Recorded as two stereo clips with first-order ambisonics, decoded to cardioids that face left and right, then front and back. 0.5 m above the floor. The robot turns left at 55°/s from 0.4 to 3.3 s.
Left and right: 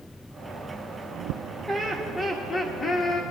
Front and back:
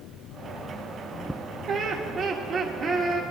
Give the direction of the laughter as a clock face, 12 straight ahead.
6 o'clock.